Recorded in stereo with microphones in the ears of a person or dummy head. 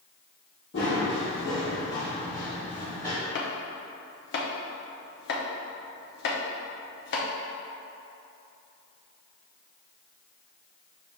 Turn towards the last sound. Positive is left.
turn(degrees=50)  # may be behind; listen again after turning